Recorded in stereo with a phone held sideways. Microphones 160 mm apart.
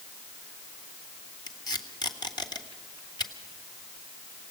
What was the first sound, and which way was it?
Tape being pulled, 25° left (ahead or behind).